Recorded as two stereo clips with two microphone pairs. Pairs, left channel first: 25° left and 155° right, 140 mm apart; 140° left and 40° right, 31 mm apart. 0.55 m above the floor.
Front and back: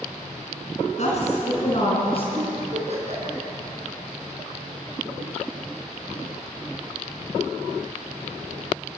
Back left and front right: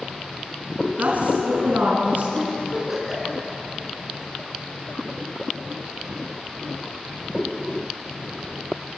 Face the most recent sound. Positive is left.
turn(degrees=-120)